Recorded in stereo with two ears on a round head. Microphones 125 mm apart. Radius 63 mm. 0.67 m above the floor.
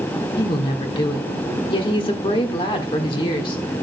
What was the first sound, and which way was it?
A woman speaking, 35° left (ahead or behind).